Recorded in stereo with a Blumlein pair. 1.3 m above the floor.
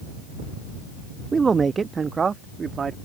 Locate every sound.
1.3 s a man speaking: 15° right; by 3.0 s 20° right